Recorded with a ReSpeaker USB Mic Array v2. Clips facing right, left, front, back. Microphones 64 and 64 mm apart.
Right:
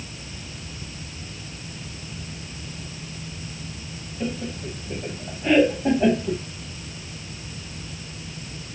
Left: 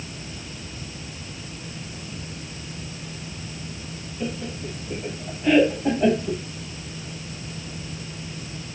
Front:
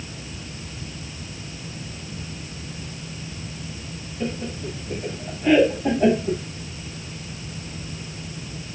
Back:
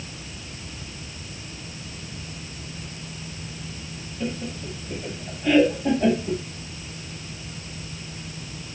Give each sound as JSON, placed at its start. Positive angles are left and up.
{"t": 4.2, "sound": "laughter", "azimuth_deg": -30, "distance_m": 1.1}